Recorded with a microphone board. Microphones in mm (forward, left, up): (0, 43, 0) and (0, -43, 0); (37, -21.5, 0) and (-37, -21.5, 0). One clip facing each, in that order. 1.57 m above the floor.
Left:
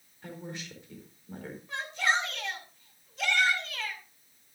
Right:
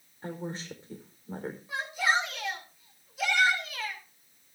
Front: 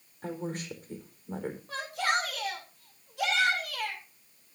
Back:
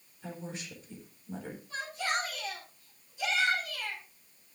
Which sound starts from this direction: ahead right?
A woman speaking, at 0.2 s.